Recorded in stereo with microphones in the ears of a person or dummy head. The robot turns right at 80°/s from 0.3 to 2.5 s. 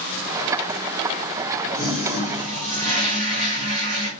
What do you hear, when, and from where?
1.7 s a toilet flushing: 165° left, 2 m; by 4.1 s 135° right, 2 m